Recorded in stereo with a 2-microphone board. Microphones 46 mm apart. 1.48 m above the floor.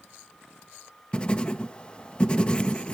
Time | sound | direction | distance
1.1 | writing | 25° left (ahead or behind) | 0.9 m